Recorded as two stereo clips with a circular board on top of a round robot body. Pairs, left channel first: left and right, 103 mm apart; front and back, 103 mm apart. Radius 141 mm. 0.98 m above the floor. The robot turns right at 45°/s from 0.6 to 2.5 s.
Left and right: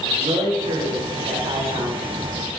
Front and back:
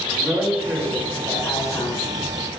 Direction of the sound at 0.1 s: 110° right.